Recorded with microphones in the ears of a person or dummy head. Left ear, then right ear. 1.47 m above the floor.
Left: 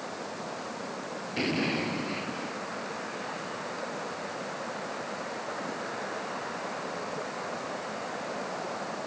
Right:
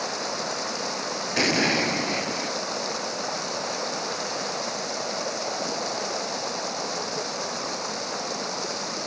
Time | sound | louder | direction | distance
0.0 | running water | right 9 dB | 75° right (ahead or behind) | ?
1.4 | an explosion | right 8 dB | 45° right (ahead or behind) | ?